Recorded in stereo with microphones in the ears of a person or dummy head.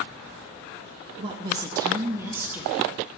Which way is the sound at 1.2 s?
25° right (ahead or behind).